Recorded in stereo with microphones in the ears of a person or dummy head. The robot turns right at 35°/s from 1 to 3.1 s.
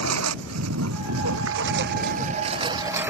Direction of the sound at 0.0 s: 75° right.